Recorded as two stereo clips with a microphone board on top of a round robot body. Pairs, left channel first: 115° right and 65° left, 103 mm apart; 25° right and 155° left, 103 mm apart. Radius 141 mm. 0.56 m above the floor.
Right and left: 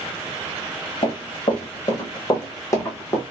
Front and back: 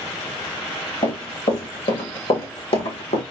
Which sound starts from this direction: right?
Running footsteps, at 1.0 s.